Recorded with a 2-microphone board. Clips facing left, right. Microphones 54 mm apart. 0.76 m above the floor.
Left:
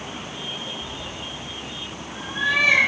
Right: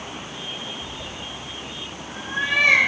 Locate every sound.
0.8 s a cat meowing: 40° right (ahead or behind), 2 m; by 2.8 s 60° right (ahead or behind), 4.5 m